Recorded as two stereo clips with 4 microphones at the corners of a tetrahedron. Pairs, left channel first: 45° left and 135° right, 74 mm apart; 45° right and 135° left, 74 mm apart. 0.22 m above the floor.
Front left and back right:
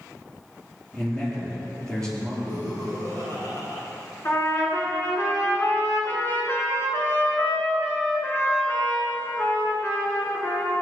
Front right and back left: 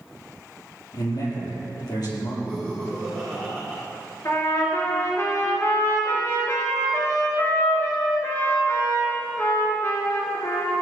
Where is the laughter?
20° left, 4 m.